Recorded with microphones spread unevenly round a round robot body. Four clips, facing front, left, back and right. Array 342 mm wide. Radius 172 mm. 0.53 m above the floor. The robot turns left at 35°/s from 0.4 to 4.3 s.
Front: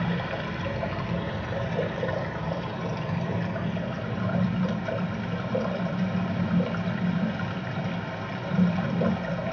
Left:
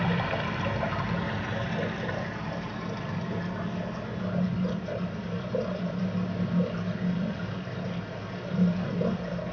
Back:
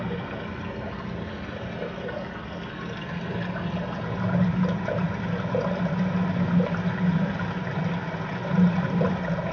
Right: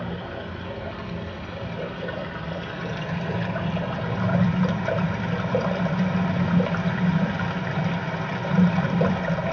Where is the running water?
50° left, 2 m; by 9.5 s 85° right, 2 m.